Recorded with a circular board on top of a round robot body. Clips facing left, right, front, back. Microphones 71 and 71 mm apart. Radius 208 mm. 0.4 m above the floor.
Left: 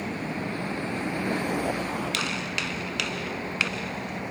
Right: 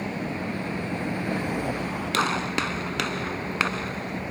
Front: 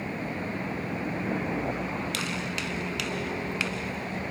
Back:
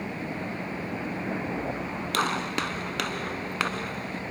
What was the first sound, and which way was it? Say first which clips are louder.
A gunshot: right 5 dB, back 5 dB; 140° right.